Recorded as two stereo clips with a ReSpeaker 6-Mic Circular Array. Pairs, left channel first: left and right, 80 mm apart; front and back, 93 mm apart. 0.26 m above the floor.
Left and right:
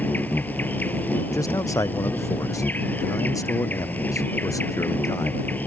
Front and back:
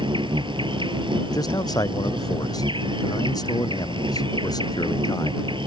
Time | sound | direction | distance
0.0 | an insect | 160° left | ?
1.3 | a man speaking | 45° left | ?